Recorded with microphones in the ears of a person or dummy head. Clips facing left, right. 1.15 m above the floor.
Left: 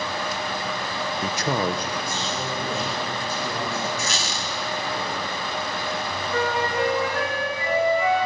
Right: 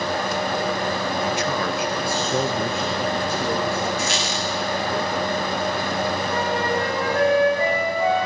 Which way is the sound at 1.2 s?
45° left (ahead or behind).